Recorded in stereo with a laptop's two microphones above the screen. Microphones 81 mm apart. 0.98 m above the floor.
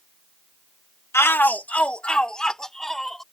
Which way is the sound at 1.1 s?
30° left (ahead or behind).